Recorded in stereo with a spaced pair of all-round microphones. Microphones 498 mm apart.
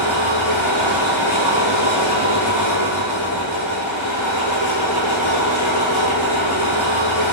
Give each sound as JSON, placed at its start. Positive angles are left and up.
{"t": 0.0, "sound": "an engine running", "side_deg": 85, "distance_m": 9.0}